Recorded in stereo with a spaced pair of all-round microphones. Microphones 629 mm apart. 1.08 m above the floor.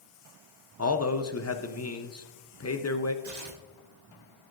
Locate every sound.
0.8 s a man speaking: 25° left (ahead or behind), 0.5 m
3.2 s tearing paper: 85° right, 1.4 m